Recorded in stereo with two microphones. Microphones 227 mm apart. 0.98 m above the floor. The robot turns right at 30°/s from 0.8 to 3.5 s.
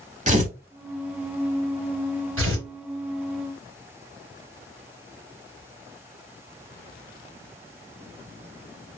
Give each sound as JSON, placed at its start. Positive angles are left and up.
{"t": 0.3, "sound": "tearing paper", "side_deg": -35, "distance_m": 0.7}
{"t": 2.4, "sound": "tearing paper", "side_deg": -65, "distance_m": 2.5}